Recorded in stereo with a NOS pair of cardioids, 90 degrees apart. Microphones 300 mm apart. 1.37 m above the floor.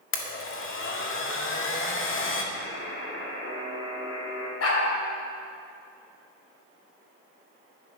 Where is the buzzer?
45° left, 4 m.